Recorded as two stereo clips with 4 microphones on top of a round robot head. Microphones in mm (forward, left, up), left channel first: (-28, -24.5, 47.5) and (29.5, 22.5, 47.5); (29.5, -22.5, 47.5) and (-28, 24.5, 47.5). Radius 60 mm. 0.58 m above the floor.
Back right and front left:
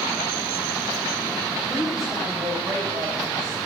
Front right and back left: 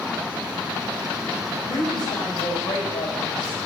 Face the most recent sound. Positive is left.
turn(degrees=-10)